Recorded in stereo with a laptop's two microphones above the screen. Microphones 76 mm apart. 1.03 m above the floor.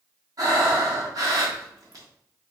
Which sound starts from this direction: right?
Breathing, at 0.4 s.